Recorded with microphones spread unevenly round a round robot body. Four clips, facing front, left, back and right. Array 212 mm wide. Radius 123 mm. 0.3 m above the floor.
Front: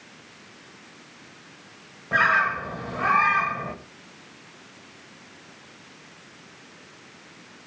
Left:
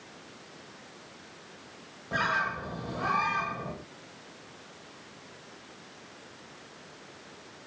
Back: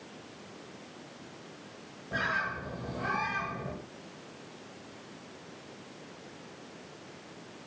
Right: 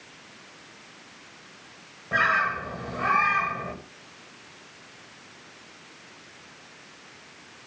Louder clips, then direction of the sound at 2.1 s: Right 5 dB, front 11 dB; 25° right.